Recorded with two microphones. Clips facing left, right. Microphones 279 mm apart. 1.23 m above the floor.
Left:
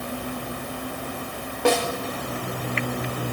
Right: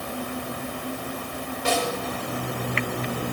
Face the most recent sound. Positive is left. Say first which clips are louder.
# left 5 dB
turn(degrees=65)  # may be behind; listen again after turning